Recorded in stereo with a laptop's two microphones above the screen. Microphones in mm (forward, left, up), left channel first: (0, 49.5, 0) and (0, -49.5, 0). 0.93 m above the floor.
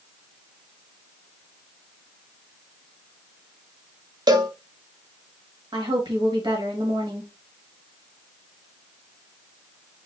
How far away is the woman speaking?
About 1.6 m.